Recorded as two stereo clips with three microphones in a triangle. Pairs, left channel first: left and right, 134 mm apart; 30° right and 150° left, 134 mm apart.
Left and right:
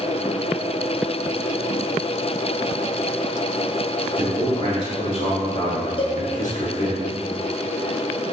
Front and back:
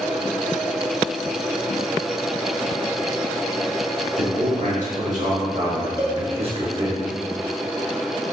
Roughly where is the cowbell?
Ahead left.